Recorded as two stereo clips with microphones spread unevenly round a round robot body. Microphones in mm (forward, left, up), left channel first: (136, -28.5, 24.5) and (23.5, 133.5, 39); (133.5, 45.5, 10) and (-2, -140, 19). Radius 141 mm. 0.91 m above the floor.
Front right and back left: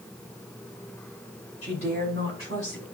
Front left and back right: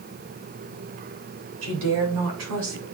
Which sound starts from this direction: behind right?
A woman speaking, at 1.6 s.